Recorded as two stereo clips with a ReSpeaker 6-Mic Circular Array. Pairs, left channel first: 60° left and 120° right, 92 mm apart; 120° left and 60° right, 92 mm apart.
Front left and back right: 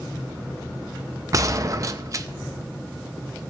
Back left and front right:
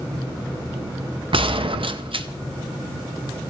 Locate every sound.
1.3 s a gunshot: 70° right, 0.5 m